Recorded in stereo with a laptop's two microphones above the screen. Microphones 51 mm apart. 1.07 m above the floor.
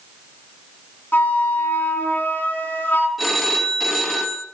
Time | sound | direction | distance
1.1 | a flute | 40° left (ahead or behind) | 3.5 m
3.2 | a phone ringing | 5° left (ahead or behind) | 1.2 m